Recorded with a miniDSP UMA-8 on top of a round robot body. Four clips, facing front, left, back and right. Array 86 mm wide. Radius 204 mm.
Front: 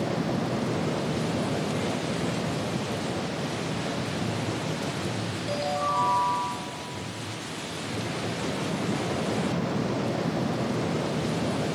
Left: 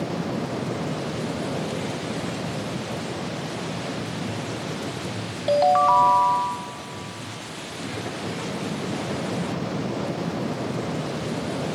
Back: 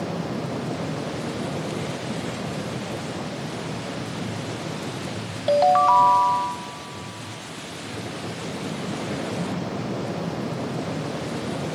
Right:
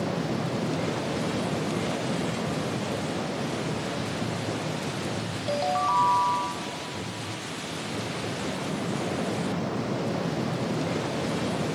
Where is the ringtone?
155° left, 0.5 m.